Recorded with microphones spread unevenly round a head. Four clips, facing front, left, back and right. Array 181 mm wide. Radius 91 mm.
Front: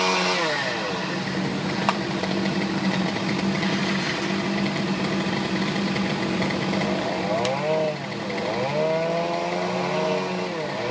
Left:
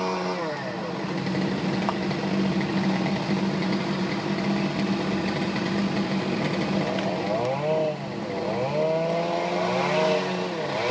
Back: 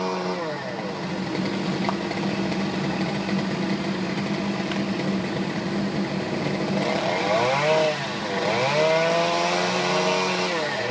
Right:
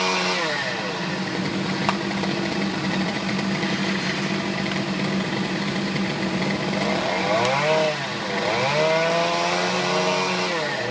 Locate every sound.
Only background noise.